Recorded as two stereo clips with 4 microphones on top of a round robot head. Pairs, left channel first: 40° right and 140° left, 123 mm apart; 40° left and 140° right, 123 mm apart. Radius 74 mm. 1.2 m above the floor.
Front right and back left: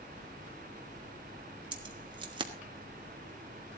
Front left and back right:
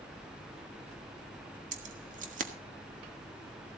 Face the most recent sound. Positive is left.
turn(degrees=-165)